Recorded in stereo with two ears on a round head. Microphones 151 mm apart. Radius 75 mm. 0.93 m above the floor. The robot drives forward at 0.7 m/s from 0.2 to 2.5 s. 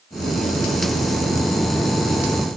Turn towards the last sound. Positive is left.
No sound to turn to.